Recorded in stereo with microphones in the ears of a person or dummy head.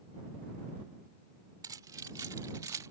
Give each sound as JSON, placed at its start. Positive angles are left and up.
{"t": 1.6, "sound": "keys jangling", "side_deg": -25}